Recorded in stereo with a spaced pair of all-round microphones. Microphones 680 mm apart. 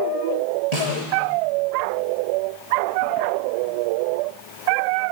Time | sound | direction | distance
0.7 | a snare drum | 60° right (ahead or behind) | 7 m